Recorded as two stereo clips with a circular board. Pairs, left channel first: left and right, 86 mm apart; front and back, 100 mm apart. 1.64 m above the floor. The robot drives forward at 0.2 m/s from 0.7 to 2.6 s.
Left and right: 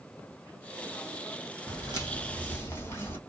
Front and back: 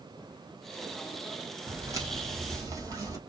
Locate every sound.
1.7 s footsteps: 130° left, 2.5 m; by 3.2 s 145° left, 2 m